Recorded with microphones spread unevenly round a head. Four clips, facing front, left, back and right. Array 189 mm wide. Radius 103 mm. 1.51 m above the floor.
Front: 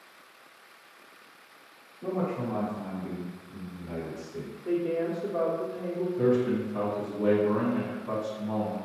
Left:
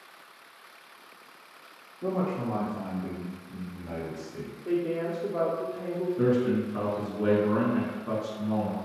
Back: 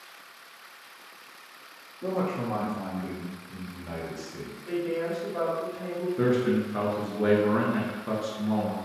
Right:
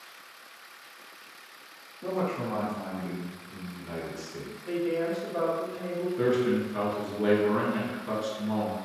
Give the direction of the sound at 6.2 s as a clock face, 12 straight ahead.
6 o'clock.